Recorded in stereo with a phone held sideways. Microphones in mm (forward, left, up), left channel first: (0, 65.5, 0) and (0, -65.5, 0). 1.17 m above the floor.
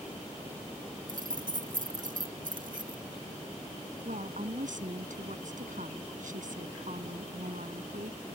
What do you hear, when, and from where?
1.1 s keys jangling: 90° right
4.0 s a woman speaking: 75° right (ahead or behind)